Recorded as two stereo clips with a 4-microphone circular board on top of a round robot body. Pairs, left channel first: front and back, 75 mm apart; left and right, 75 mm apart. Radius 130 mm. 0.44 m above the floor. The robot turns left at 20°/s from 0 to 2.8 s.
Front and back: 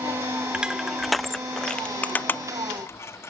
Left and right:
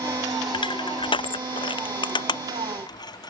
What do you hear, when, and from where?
0.5 s crushing: 105° left; by 3.3 s 60° left